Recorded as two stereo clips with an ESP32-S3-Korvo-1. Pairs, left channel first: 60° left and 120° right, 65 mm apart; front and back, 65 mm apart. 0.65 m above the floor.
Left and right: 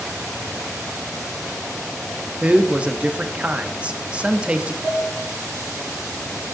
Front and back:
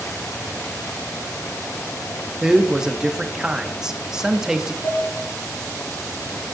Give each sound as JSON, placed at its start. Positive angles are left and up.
{"t": 2.4, "sound": "a man speaking", "azimuth_deg": -120, "distance_m": 0.5}
{"t": 4.8, "sound": "dishes clattering", "azimuth_deg": -50, "distance_m": 3.5}